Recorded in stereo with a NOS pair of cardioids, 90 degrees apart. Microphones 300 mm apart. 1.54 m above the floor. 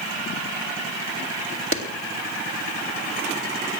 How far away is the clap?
About 2.5 m.